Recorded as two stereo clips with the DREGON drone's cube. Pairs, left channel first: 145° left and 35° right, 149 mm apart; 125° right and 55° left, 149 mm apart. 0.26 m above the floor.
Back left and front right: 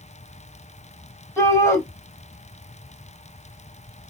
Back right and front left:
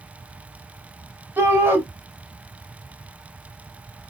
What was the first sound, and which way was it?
A shout, 105° left.